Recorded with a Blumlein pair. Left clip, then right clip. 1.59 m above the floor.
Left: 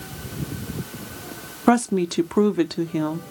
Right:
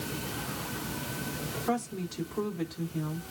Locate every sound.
1.7 s a woman speaking: 40° left, 0.7 m